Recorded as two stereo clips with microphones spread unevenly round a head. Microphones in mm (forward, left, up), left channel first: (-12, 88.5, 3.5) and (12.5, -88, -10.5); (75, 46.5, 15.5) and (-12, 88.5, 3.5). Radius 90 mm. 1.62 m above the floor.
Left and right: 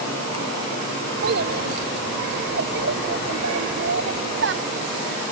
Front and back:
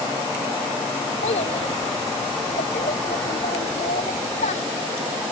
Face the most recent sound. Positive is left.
turn(degrees=-55)